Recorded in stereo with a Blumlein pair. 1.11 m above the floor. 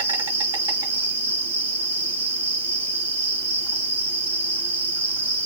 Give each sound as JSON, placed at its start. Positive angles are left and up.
{"t": 0.0, "sound": "an insect", "azimuth_deg": -70, "distance_m": 2.5}